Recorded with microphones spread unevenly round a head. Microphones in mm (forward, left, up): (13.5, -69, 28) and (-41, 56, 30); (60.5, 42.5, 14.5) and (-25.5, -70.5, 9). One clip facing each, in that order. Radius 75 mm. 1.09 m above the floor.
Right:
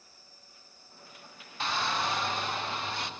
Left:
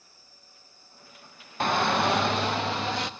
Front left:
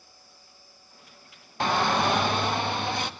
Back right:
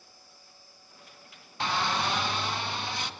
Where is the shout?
90° left, 0.9 m; by 3.1 s 95° left, 2 m.